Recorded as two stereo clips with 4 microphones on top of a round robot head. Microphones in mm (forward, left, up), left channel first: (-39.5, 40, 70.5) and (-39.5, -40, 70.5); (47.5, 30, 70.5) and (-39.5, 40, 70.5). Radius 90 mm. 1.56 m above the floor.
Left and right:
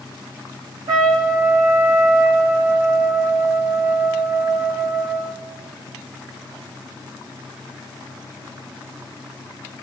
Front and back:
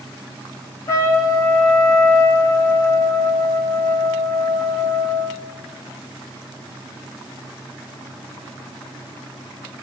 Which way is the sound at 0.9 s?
60° right.